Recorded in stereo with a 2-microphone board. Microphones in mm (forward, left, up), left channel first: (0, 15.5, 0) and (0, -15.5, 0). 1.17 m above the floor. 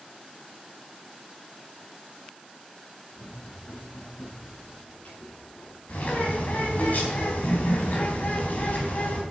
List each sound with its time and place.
3.1 s running footsteps: 60° left (ahead or behind), 7.5 m; by 5.8 s 70° left (ahead or behind), 7 m
5.9 s a bird: 65° left (ahead or behind), 4.5 m